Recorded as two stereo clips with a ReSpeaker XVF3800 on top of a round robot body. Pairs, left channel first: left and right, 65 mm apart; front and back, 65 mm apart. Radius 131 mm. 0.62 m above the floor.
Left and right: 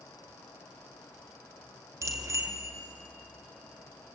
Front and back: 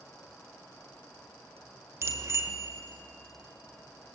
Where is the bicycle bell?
135° right, 2 m.